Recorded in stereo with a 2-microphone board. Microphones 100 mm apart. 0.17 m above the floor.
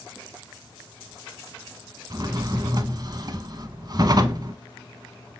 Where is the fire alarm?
I don't hear a fire alarm.